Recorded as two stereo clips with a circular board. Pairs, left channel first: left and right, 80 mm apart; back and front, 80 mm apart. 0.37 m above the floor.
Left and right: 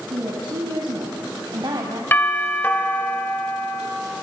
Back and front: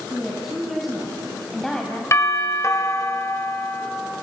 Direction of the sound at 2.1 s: 145° left.